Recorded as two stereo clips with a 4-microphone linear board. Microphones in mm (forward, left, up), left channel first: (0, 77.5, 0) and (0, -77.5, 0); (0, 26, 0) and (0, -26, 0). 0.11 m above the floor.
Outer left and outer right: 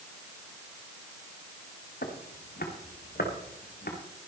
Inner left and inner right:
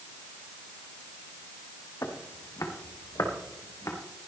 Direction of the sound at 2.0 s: 85° left.